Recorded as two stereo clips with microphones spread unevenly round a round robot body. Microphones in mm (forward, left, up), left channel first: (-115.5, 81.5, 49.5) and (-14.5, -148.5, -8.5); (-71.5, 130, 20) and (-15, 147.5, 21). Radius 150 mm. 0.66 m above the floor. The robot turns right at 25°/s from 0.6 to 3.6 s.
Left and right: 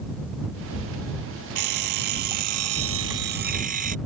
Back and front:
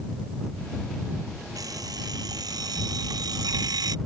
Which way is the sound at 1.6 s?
50° right.